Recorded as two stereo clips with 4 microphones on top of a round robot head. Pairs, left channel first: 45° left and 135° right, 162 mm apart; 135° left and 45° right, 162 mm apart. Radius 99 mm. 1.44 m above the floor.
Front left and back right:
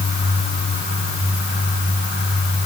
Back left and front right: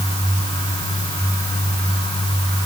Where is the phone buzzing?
No phone buzzing in this recording.